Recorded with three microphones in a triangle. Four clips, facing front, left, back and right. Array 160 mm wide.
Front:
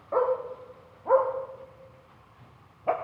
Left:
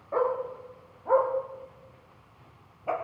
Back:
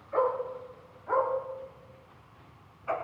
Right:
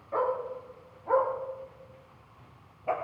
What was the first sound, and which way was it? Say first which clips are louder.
A dog barking: left 2 dB, front 2 dB; 25° left.